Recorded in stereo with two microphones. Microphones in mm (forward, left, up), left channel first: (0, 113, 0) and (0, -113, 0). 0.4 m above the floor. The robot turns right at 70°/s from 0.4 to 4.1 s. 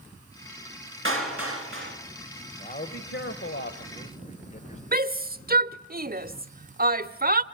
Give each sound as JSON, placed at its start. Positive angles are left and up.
{"t": 1.1, "sound": "a clap", "azimuth_deg": -115, "distance_m": 4.5}
{"t": 2.6, "sound": "a man speaking", "azimuth_deg": 35, "distance_m": 2.0}
{"t": 4.9, "sound": "a shout", "side_deg": -40, "distance_m": 1.2}